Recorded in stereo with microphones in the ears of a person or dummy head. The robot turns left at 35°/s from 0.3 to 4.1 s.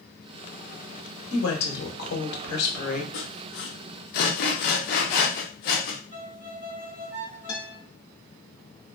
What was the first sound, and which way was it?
A woman speaking, 100° left.